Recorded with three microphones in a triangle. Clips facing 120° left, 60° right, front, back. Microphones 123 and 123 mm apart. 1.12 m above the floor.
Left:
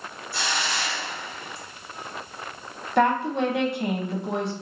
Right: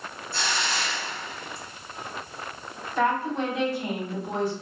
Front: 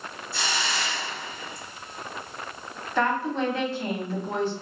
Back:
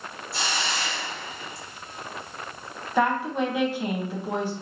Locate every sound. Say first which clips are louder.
0.3 s a hiss: left 1 dB, even; 165° right, 1.5 m
3.0 s a woman speaking: left 3 dB, back 1 dB; 105° left, 0.8 m